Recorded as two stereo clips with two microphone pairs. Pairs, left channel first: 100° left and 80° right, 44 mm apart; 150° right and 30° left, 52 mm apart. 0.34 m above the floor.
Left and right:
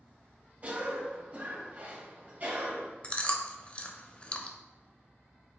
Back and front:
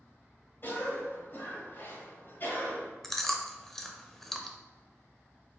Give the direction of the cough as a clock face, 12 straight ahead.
4 o'clock.